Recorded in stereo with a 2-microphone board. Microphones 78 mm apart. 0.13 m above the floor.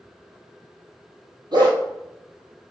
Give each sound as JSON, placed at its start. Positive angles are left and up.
{"t": 1.5, "sound": "a dog barking", "side_deg": -75, "distance_m": 1.1}